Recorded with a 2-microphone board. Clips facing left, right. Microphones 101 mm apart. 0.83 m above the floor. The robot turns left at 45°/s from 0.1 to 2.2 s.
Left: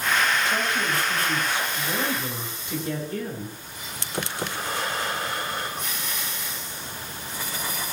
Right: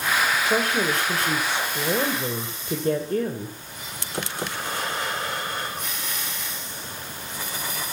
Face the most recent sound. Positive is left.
turn(degrees=-135)